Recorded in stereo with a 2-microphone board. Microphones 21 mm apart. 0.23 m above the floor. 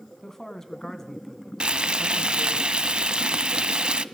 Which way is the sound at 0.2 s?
25° left (ahead or behind).